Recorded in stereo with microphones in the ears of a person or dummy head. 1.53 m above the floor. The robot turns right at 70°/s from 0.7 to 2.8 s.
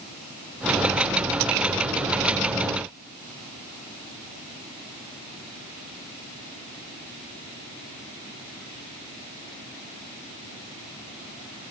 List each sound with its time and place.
Only background noise.